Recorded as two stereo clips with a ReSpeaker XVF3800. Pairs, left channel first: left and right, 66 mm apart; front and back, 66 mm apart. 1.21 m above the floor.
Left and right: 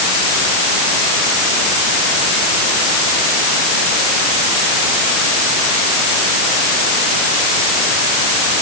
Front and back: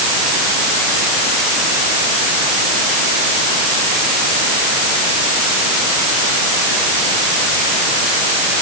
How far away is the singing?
No singing in this recording.